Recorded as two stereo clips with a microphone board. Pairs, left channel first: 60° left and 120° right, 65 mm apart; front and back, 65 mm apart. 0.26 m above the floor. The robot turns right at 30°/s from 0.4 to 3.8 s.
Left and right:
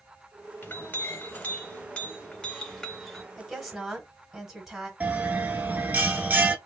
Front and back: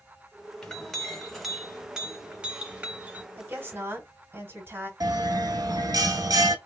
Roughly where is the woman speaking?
Behind left.